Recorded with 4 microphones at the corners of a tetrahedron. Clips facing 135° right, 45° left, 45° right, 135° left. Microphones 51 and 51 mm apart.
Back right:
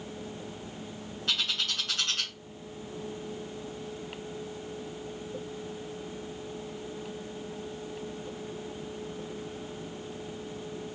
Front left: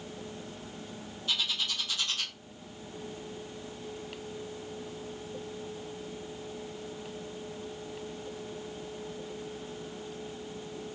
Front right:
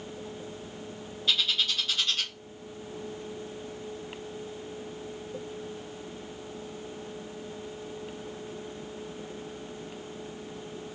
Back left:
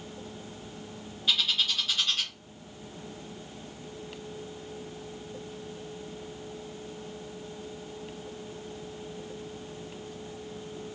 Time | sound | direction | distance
1.3 | a bird | 140° right | 1.1 m